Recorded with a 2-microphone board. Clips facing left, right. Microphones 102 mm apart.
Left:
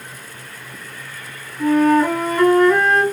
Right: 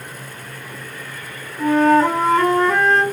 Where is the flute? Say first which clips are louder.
Even; 30° right (ahead or behind), 1.4 m.